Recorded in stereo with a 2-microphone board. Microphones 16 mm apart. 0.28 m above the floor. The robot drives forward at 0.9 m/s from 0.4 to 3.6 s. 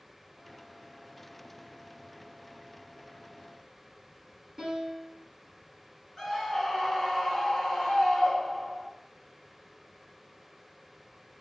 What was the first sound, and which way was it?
A piano, 15° right (ahead or behind).